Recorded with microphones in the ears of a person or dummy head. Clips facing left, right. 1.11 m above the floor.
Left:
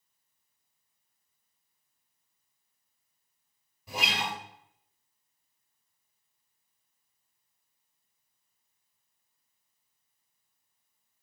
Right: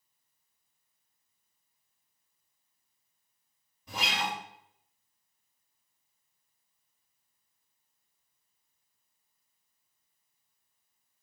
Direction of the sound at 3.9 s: Centre (ahead or behind).